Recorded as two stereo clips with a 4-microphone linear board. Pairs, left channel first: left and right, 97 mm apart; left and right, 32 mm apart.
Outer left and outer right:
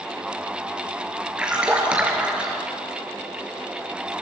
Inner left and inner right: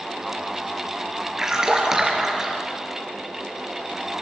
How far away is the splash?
About 4.5 m.